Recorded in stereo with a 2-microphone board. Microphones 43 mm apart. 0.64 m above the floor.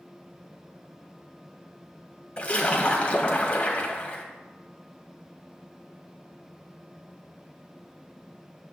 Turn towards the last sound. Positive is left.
turn(degrees=30)  # may be behind; listen again after turning